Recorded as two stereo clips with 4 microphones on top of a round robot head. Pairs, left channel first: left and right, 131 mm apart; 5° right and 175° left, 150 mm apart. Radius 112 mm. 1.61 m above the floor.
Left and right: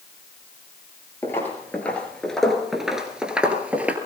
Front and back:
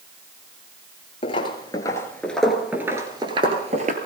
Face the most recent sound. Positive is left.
turn(degrees=-165)